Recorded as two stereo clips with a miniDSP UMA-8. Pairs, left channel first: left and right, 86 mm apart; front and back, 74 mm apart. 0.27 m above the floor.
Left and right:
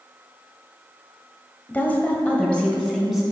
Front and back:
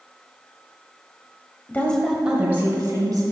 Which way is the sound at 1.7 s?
40° left.